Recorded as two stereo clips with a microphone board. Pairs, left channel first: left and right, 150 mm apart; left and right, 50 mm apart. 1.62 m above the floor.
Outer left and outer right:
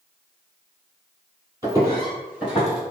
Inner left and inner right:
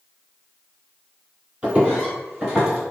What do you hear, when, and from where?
1.6 s footsteps: 20° right (ahead or behind), 1.7 m; by 2.9 s centre (ahead or behind), 1.6 m